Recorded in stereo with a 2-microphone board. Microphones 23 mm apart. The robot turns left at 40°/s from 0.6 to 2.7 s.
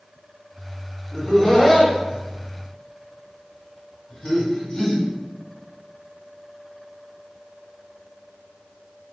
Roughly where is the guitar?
I don't hear a guitar.